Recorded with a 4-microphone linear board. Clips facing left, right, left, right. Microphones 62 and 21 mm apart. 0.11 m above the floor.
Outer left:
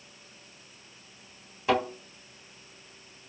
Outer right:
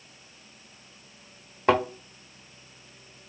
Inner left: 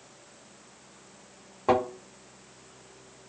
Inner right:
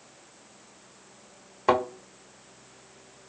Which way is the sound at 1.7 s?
50° right (ahead or behind).